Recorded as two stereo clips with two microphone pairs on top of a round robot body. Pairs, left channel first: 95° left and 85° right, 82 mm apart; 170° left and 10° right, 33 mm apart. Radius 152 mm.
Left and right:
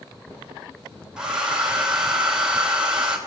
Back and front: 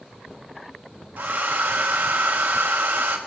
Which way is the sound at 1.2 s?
5° right.